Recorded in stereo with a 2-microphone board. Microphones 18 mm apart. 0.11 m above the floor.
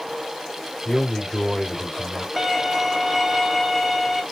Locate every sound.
0.8 s a man speaking: 25° left (ahead or behind), 3 m
2.4 s a violin: centre (ahead or behind), 1.0 m